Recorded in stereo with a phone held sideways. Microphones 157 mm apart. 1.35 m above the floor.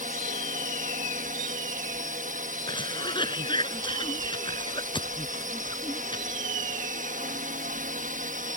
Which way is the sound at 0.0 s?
60° right (ahead or behind).